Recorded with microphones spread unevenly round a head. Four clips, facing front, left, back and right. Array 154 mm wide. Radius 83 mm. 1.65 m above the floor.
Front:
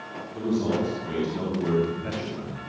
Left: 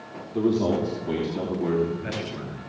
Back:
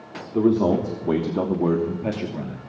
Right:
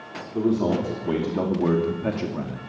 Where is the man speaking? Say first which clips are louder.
Even, back 7 dB; straight behind, 3.5 m; by 2.6 s 130° right, 3 m.